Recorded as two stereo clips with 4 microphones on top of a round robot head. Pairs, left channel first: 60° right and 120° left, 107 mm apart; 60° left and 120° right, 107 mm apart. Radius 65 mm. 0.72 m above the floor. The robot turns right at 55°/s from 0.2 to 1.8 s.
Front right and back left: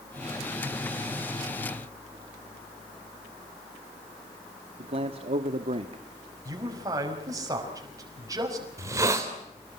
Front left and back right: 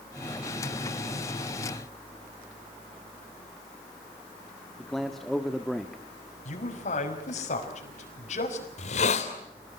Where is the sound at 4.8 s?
145° left, 1.3 m.